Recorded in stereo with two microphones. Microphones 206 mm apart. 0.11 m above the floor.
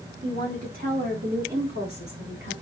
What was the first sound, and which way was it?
A woman speaking, 40° right (ahead or behind).